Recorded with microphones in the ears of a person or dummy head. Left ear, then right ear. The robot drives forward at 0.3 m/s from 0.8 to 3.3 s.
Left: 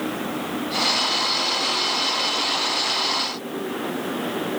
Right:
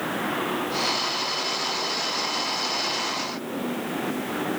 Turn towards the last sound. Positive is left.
No sound to turn to.